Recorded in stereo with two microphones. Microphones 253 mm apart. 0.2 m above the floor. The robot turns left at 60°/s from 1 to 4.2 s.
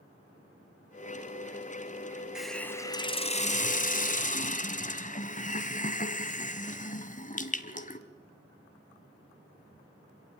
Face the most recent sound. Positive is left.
turn(degrees=75)